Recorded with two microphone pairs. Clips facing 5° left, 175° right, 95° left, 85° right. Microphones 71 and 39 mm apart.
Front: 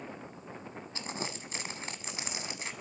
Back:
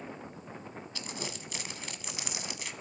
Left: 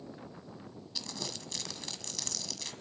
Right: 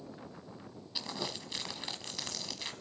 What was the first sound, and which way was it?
Crumpling, 30° right.